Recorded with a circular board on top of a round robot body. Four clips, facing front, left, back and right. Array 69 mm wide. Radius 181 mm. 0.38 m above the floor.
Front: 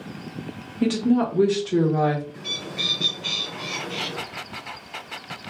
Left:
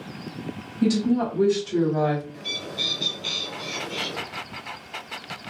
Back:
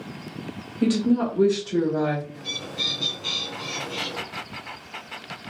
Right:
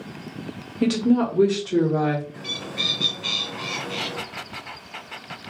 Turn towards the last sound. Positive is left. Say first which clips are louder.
# right 1 dB, front 1 dB
turn(degrees=-65)